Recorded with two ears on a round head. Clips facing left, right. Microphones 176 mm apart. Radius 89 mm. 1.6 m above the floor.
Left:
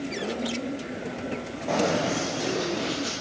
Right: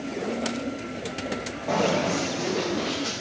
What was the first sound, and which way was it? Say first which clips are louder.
Running footsteps: right 1 dB; 5° left (ahead or behind).